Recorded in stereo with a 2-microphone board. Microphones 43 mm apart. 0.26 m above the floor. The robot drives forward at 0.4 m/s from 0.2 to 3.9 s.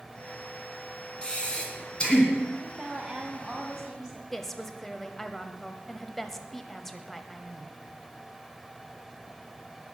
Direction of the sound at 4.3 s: 5° left (ahead or behind).